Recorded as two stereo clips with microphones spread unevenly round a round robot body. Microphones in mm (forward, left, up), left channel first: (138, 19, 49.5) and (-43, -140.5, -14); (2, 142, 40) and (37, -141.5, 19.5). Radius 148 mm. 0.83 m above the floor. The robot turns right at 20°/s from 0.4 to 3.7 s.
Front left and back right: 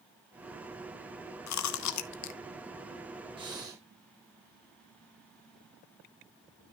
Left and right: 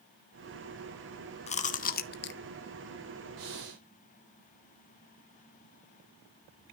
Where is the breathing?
70° right, 4 m; by 3.8 s 65° right, 4 m.